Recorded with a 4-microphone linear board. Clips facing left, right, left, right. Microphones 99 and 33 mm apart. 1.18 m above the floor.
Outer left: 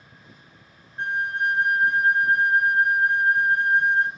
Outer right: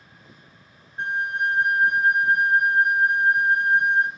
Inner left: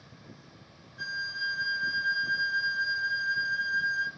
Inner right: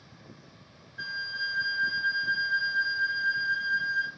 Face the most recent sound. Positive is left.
turn(degrees=-20)  # may be behind; listen again after turning